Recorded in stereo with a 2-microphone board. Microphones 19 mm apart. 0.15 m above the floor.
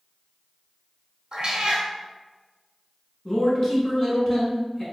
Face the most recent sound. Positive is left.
turn(degrees=25)  # may be behind; listen again after turning